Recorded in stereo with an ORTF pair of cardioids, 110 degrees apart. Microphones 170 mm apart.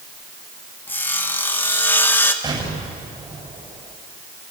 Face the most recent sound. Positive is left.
turn(degrees=-20)